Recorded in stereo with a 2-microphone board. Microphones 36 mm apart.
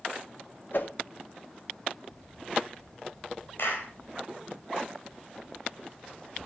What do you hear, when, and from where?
0.7 s a whoosh: 65° left (ahead or behind), 1.8 m
3.6 s a clap: 65° left (ahead or behind), 4 m